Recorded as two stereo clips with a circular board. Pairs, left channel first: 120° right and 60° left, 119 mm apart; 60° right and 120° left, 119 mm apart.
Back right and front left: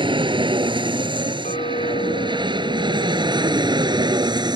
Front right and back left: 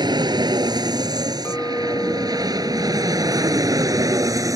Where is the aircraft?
80° left.